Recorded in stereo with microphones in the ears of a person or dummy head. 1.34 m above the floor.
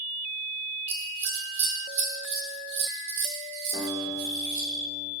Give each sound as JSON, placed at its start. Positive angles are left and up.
{"t": 0.9, "sound": "scissors", "side_deg": -40, "distance_m": 2.0}
{"t": 3.7, "sound": "a guitar", "side_deg": -35, "distance_m": 4.0}